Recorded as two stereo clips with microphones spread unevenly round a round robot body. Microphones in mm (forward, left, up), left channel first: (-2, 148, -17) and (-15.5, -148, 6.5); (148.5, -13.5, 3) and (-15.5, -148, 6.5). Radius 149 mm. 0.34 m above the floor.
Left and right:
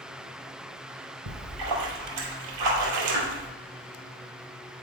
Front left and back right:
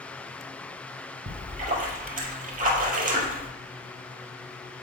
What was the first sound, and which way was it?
A splash, 90° right.